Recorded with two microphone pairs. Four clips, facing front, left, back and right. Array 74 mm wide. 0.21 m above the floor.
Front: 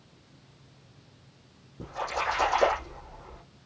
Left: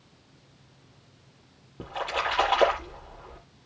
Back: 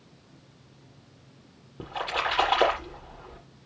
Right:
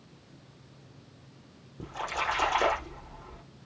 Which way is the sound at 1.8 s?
145° left.